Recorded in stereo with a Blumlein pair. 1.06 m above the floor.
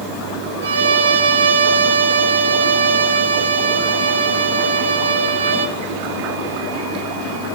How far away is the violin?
About 1.0 m.